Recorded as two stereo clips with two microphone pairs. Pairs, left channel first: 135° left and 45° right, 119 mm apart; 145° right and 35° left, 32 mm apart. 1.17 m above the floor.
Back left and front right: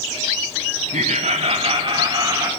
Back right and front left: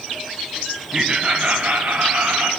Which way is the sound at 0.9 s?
35° right.